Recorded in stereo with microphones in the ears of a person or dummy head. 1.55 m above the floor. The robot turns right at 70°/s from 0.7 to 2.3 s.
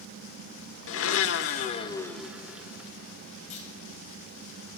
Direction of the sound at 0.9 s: 85° left.